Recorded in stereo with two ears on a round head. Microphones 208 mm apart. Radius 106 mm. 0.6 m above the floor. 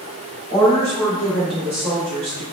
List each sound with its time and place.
0.5 s a woman speaking: 30° left (ahead or behind), 1.5 m; by 2.4 s 30° right (ahead or behind), 1.3 m